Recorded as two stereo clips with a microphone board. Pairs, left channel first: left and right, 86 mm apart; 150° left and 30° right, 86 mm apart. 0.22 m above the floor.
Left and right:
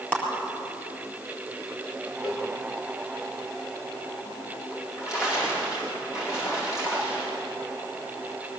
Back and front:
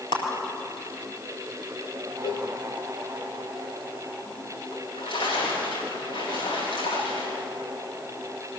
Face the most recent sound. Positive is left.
turn(degrees=140)